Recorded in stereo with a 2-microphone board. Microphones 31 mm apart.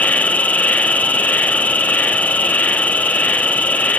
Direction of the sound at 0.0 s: 55° left (ahead or behind).